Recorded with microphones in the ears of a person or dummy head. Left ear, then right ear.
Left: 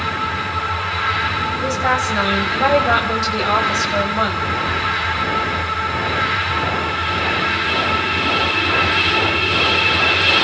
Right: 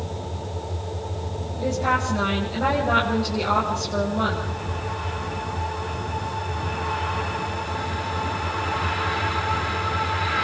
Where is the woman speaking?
65° left (ahead or behind), 7.5 m.